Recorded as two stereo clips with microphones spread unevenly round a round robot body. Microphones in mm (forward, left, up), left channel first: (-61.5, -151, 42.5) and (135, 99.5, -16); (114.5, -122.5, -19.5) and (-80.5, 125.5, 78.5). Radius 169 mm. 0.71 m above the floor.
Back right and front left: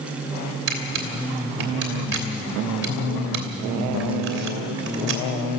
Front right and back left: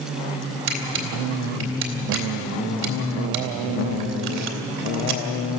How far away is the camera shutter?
About 2.5 m.